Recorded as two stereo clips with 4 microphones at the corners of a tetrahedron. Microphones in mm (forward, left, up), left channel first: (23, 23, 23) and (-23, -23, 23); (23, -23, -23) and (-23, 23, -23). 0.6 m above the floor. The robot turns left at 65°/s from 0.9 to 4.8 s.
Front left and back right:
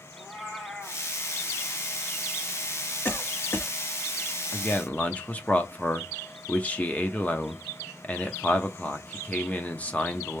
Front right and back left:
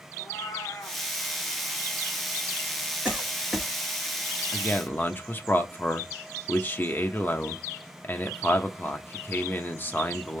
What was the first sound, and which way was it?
A cat meowing, 40° right.